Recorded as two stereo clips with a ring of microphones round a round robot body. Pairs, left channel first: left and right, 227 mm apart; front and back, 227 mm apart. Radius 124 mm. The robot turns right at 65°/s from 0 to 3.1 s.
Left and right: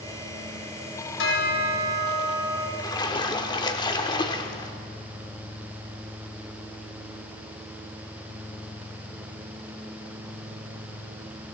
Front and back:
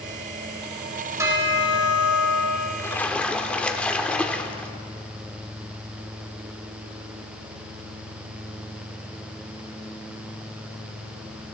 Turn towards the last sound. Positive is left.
turn(degrees=75)